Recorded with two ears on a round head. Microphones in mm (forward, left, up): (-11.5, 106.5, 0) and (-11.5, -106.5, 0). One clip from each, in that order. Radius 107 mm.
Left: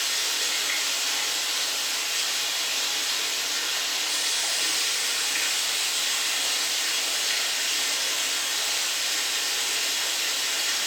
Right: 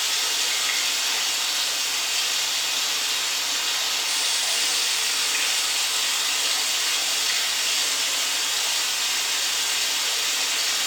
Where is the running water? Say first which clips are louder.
Right 2 dB; 65° right (ahead or behind), 1.5 m.